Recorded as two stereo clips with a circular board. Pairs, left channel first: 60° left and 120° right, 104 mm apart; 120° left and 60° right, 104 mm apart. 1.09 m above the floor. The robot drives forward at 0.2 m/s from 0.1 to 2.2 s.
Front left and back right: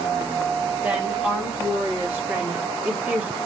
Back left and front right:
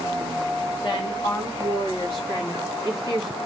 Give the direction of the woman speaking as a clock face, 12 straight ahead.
7 o'clock.